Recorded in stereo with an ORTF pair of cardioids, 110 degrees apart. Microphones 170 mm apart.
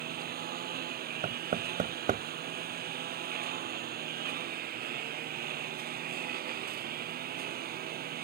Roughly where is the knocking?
Ahead right.